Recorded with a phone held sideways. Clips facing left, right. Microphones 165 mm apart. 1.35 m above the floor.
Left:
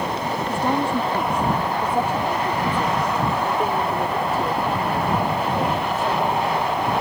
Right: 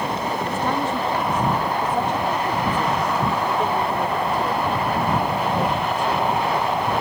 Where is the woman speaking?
15° left (ahead or behind); by 6.9 s 5° left (ahead or behind).